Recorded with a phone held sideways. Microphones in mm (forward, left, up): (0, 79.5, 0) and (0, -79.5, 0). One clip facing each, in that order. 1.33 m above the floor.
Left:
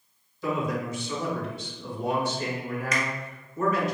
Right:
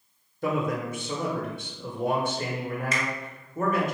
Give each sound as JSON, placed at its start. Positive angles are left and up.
{"t": 0.4, "sound": "a man speaking", "side_deg": -55, "distance_m": 1.0}
{"t": 2.9, "sound": "a finger snap", "side_deg": -30, "distance_m": 0.7}